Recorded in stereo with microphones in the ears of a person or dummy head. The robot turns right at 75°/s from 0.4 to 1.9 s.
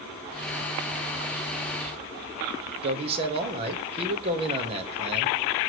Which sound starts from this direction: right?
A man speaking, at 2.8 s.